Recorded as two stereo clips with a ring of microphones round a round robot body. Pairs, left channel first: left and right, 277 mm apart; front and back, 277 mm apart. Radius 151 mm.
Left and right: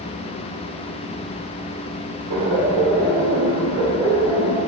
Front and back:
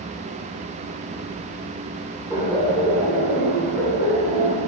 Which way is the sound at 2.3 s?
95° right.